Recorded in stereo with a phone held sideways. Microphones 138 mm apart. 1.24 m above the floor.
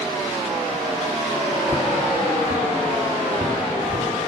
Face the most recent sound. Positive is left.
turn(degrees=-40)  # may be behind; listen again after turning